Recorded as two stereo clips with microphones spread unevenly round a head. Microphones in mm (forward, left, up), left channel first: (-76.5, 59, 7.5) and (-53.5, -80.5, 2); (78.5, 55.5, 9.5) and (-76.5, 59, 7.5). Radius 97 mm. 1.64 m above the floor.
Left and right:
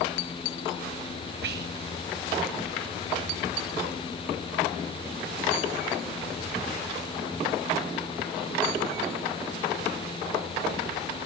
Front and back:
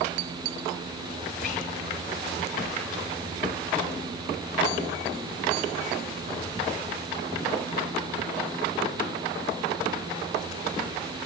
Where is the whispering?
55° right, 1.4 m.